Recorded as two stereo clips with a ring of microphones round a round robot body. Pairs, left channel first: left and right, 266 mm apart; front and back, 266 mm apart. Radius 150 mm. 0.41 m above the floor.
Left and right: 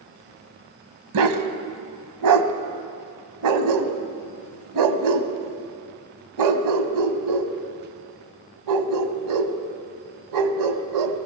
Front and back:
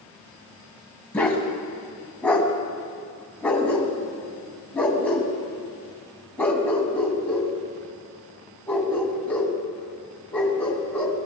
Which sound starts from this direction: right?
A dog barking, at 1.1 s.